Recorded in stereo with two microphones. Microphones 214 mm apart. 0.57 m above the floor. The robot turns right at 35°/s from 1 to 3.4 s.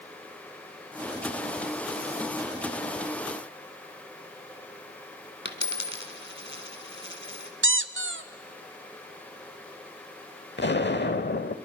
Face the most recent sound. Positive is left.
turn(degrees=55)  # may be behind; listen again after turning